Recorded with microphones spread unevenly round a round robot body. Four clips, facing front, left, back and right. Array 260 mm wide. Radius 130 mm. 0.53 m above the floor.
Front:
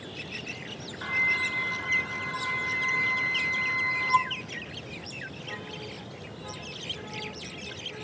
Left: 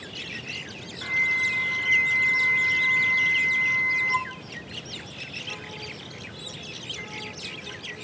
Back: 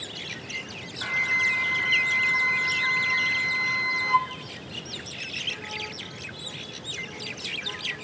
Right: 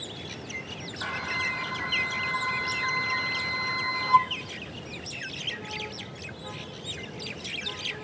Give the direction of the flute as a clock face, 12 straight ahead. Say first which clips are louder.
Left 4 dB, back 2 dB; 4 o'clock.